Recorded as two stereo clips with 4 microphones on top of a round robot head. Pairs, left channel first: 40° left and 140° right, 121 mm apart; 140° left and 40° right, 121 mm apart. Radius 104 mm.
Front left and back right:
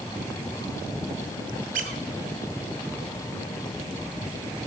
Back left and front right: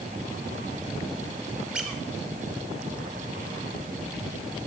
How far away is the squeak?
About 0.7 m.